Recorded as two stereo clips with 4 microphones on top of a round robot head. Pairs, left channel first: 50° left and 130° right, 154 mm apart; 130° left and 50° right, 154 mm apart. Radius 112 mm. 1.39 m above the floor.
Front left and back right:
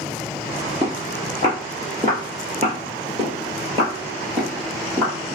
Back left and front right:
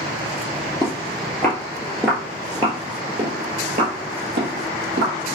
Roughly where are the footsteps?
Behind.